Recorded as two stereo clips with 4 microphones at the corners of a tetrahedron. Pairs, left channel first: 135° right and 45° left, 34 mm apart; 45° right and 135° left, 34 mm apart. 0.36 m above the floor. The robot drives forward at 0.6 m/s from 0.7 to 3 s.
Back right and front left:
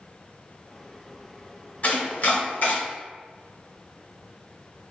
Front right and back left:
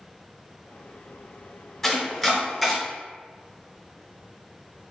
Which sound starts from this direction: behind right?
Chopping, at 1.8 s.